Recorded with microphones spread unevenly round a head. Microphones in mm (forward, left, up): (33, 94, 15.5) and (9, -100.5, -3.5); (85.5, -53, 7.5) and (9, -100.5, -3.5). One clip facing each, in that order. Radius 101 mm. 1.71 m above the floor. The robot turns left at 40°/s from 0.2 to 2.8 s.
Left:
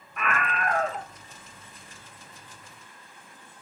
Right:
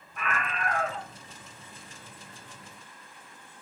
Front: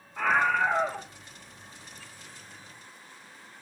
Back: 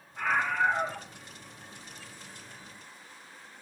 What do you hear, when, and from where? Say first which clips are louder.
0.2 s a scream: left 4 dB, front 3 dB; 60° left, 1.2 m; by 1.1 s 30° left, 1.2 m